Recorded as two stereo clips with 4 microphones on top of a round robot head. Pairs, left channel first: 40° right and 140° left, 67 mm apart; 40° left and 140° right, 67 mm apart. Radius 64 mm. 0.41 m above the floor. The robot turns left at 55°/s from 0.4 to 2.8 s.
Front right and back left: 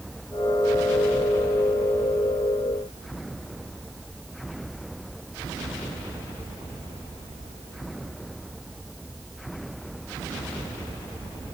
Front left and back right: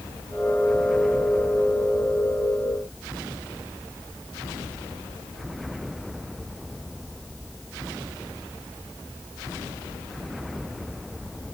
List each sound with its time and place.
Only background noise.